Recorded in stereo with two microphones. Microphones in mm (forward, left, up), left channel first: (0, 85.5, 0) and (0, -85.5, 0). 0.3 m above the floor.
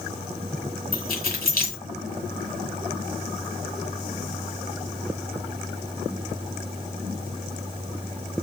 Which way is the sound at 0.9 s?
65° left (ahead or behind).